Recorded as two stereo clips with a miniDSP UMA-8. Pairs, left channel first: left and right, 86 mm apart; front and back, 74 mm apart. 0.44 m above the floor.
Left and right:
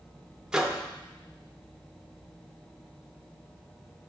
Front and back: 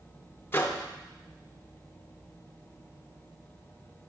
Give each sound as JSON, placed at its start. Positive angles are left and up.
{"t": 0.5, "sound": "a microwave", "azimuth_deg": -15, "distance_m": 0.5}